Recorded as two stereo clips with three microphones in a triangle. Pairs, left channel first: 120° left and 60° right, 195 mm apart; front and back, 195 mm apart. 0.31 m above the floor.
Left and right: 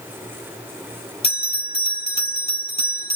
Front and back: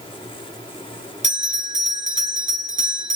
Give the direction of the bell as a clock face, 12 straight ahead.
6 o'clock.